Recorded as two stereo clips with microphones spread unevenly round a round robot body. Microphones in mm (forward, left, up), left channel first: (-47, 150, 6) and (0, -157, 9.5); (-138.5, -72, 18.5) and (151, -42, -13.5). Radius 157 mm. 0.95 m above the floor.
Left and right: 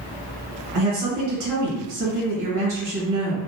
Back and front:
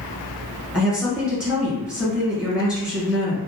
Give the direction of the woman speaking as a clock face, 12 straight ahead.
3 o'clock.